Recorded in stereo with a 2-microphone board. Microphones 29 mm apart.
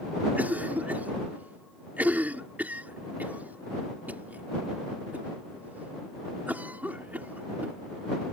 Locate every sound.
0.4 s a cough: 70° right (ahead or behind)